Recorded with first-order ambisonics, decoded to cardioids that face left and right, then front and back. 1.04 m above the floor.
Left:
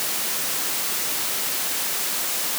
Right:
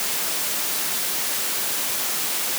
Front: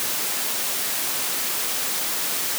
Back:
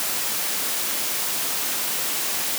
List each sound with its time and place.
Only background noise.